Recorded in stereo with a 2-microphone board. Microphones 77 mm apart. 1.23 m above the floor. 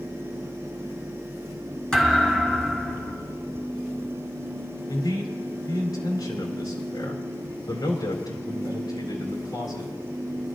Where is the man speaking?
65° left (ahead or behind), 3.5 m.